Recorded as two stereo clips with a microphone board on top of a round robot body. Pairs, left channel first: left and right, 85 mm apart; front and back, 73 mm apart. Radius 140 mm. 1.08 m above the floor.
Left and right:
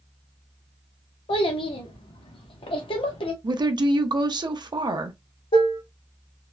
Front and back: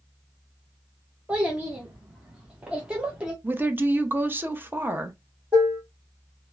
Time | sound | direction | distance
1.3 | a child speaking | 105° left | 0.5 m
3.4 | a woman speaking | 120° right | 0.7 m
5.5 | dishes clattering | 110° left | 1.0 m